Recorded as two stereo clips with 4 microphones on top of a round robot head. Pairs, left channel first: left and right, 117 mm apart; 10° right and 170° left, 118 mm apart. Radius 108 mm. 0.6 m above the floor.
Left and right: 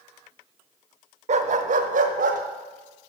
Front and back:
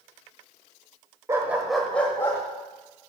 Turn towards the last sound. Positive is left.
turn(degrees=-80)